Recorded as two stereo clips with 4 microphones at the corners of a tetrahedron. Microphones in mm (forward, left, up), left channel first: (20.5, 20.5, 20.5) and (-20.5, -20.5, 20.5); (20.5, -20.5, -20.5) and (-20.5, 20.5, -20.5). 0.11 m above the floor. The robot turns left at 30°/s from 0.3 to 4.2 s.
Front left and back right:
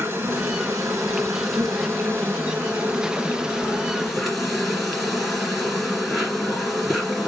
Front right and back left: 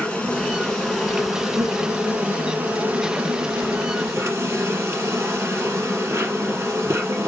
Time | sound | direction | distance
0.0 | an insect | 115° right | 2.5 m